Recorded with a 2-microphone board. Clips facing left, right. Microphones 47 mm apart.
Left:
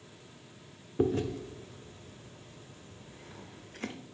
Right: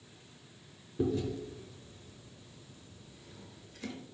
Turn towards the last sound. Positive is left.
turn(degrees=50)  # may be behind; listen again after turning